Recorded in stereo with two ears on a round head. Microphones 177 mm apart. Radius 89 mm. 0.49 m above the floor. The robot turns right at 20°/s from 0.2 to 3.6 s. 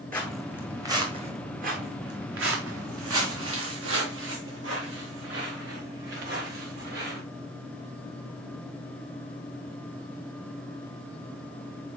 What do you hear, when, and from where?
0.1 s footsteps: 10° left (ahead or behind), 2 m; by 7.2 s 55° right (ahead or behind), 5.5 m